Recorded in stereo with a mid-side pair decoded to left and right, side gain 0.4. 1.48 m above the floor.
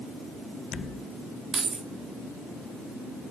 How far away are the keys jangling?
About 3.5 m.